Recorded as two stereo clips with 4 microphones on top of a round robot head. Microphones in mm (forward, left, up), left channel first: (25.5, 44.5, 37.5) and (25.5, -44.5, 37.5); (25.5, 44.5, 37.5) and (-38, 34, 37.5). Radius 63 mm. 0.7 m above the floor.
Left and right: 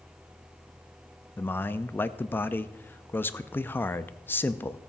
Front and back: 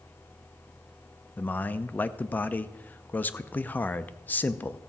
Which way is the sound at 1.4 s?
45° left.